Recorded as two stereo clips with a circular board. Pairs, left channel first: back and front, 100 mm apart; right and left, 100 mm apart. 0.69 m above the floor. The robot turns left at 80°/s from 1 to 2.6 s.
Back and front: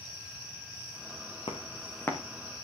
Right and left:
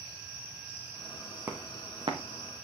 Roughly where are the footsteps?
Behind.